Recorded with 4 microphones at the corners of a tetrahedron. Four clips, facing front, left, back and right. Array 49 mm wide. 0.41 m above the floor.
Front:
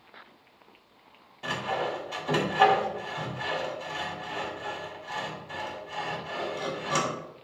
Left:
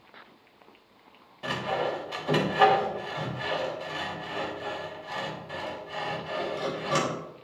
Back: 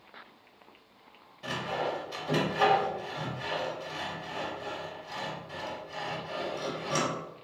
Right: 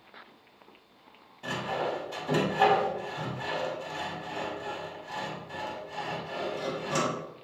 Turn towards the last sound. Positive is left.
turn(degrees=65)